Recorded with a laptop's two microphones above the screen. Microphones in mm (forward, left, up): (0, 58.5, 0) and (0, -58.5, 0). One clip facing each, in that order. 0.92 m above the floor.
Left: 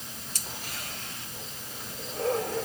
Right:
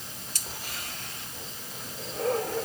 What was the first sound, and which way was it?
Only background noise.